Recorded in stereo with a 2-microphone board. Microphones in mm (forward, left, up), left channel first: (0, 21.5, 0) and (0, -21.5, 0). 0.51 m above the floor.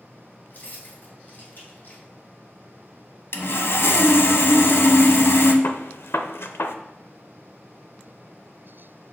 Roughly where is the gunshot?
Left.